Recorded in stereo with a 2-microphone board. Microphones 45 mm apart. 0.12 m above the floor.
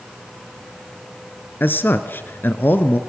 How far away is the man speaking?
About 1.5 m.